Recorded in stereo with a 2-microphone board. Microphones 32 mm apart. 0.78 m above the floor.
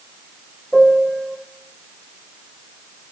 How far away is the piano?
About 3.5 m.